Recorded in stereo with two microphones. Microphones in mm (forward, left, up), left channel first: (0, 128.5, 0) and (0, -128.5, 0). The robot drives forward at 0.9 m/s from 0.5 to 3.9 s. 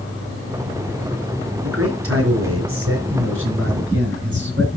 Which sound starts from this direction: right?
A man speaking, at 1.6 s.